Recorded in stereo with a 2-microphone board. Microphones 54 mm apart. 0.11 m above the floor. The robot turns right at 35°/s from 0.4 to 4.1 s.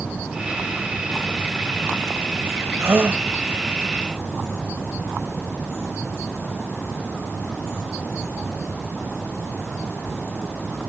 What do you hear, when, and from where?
2.8 s a gasp: 50° right (ahead or behind), 1.9 m; by 3.2 s 35° right (ahead or behind), 1.9 m